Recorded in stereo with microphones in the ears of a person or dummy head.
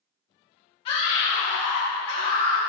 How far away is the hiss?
No hiss in this recording.